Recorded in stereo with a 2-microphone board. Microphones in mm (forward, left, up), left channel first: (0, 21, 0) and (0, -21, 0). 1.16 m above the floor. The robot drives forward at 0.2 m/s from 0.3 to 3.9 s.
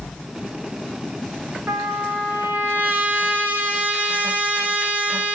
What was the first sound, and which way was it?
A trumpet, 65° right (ahead or behind).